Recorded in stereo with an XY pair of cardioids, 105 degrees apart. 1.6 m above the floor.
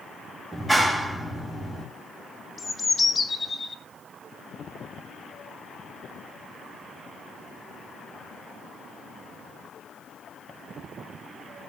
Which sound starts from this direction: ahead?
A clap, at 0.5 s.